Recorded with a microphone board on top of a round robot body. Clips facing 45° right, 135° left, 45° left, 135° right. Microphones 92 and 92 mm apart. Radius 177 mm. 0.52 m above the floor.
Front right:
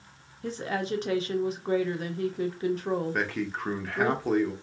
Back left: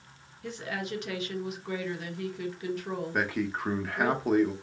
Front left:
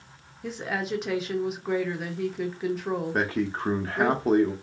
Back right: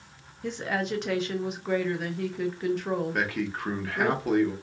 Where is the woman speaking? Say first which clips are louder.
Front right 5 dB, back right 1 dB; 40° right, 0.9 m.